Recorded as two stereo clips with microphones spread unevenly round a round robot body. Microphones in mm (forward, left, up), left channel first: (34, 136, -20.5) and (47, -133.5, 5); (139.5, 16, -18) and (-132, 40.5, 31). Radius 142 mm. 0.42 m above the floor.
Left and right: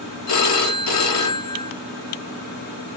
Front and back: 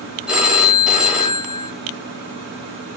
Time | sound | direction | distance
0.3 | a phone ringing | 85° left | 1.2 m